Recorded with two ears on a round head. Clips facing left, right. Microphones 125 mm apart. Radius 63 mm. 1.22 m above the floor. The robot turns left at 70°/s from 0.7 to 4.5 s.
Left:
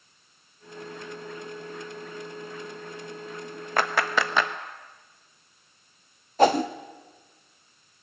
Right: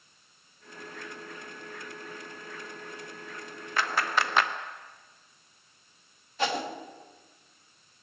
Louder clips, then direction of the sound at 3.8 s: Left 3 dB; 40° left (ahead or behind).